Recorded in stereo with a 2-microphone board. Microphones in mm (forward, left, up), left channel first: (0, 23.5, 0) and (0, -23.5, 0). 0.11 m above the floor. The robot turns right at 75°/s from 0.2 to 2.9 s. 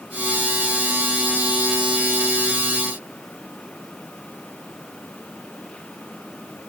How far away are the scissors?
No scissors in this recording.